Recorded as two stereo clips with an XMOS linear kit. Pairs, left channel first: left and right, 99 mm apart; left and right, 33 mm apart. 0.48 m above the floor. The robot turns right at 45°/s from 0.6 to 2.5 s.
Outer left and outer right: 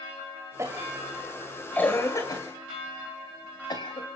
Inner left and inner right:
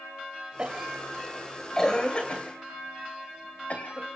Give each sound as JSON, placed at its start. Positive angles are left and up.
{"t": 0.6, "sound": "a cough", "side_deg": -30, "distance_m": 2.0}